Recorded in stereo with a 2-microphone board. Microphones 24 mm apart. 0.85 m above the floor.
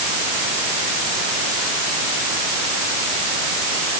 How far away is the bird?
I don't hear a bird.